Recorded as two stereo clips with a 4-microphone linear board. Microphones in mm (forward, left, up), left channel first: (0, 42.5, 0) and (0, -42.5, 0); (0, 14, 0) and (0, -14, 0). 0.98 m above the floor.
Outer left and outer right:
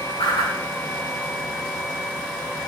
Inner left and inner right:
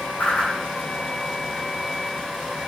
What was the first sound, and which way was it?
A whoosh, 90° left.